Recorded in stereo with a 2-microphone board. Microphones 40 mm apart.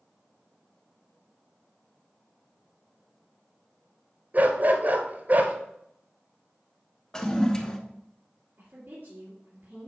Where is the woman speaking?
50° right (ahead or behind), 3.5 m.